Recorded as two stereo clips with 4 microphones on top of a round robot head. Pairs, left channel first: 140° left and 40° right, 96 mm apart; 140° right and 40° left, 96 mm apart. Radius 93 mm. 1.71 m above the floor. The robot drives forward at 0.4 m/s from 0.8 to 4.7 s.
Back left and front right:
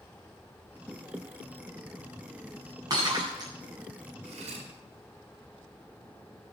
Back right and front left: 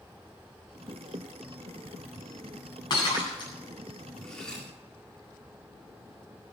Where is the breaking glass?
95° right, 9.5 m.